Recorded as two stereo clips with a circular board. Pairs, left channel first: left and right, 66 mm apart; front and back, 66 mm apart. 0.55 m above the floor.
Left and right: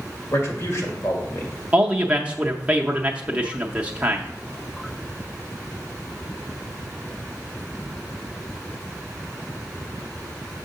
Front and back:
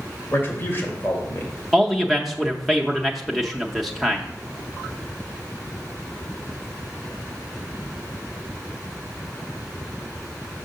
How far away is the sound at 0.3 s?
About 2 m.